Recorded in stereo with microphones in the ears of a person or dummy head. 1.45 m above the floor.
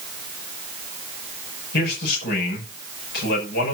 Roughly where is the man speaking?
Left.